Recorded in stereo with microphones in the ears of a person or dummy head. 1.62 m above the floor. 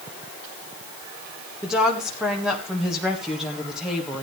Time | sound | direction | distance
1.6 | a woman speaking | 5° right (ahead or behind) | 1.9 m